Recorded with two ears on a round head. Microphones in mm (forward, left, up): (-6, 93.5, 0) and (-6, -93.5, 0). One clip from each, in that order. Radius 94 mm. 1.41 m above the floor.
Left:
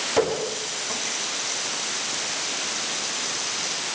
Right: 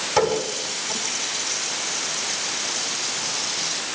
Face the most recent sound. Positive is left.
turn(degrees=-10)  # may be behind; listen again after turning